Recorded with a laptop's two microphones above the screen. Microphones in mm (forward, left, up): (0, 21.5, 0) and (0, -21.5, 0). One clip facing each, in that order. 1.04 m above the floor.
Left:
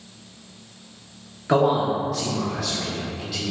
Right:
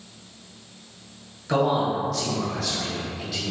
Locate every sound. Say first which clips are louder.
1.5 s a man speaking: left 3 dB; 30° left (ahead or behind), 1.0 m; by 3.5 s 5° right (ahead or behind), 1.9 m